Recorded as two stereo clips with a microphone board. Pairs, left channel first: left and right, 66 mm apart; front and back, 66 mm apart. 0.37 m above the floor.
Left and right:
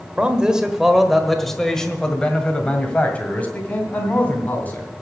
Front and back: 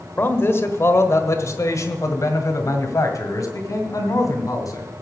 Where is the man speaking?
30° right, 1.3 m; by 4.9 s 30° left, 3 m.